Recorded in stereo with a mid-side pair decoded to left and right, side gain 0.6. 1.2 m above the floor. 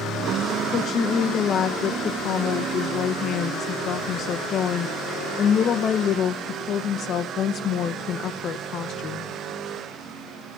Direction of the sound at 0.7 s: 45° left.